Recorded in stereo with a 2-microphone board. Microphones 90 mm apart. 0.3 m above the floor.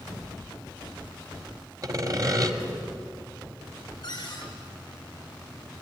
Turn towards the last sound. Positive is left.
turn(degrees=50)  # may be behind; listen again after turning